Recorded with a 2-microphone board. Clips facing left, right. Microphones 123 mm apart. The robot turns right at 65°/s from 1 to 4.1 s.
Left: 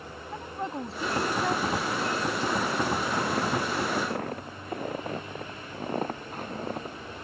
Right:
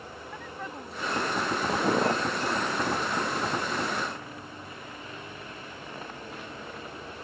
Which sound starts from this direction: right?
Footsteps, at 1.7 s.